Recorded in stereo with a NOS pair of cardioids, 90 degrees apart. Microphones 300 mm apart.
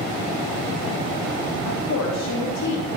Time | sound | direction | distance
1.6 | a woman speaking | 65° left | 4 m